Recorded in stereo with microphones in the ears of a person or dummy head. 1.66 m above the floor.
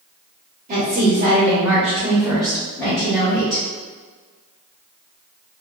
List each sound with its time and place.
0.7 s a woman speaking: 40° right (ahead or behind), 1.1 m; by 3.6 s 20° left (ahead or behind), 1.9 m